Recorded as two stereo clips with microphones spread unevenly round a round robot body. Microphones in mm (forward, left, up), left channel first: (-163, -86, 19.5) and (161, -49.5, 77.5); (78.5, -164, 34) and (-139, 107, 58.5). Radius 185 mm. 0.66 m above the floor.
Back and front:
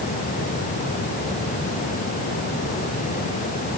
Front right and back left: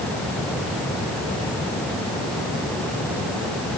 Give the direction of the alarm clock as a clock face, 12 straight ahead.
I don't hear an alarm clock.